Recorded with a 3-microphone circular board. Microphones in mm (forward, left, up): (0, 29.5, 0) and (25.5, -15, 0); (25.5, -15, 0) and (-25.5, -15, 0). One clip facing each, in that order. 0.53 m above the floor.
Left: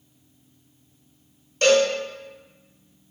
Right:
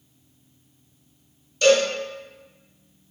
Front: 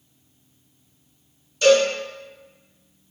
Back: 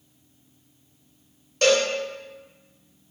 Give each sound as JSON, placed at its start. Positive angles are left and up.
{"t": 1.6, "sound": "a cowbell", "azimuth_deg": 160, "distance_m": 0.9}